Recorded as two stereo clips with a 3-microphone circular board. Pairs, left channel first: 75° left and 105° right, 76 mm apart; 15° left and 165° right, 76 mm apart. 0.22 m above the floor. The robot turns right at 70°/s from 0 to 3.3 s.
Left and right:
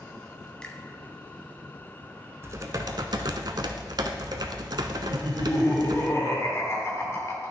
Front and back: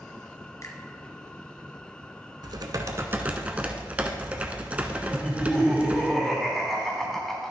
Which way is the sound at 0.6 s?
5° left.